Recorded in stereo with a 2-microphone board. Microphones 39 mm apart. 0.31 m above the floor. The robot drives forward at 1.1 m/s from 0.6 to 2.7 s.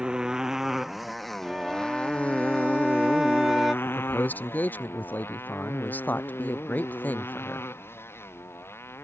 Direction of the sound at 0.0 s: 20° right (ahead or behind).